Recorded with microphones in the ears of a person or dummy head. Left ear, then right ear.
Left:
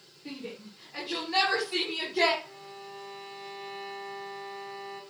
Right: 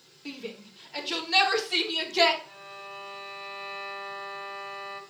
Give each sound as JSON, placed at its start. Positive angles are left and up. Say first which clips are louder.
{"t": 0.2, "sound": "a shout", "louder": "right 2 dB", "side_deg": -45, "distance_m": 5.0}
{"t": 2.4, "sound": "a violin", "louder": "right 2 dB", "side_deg": -65, "distance_m": 3.5}